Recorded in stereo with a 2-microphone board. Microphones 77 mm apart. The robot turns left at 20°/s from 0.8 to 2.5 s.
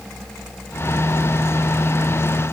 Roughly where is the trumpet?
No trumpet in this recording.